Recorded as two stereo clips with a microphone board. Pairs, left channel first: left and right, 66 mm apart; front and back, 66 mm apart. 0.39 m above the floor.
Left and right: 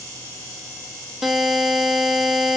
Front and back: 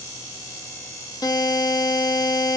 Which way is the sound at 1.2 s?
5° right.